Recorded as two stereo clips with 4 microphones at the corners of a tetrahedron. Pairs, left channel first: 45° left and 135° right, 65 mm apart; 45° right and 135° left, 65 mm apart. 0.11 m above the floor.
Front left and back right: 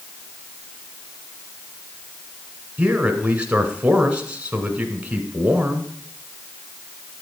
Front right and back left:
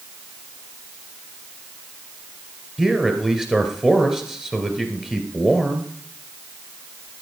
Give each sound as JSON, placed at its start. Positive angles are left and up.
{"t": 2.8, "sound": "a man speaking", "azimuth_deg": -160, "distance_m": 1.5}